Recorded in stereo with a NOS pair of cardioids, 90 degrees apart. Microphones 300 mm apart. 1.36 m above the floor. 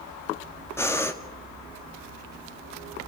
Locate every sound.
0.8 s breathing: 10° left, 1.9 m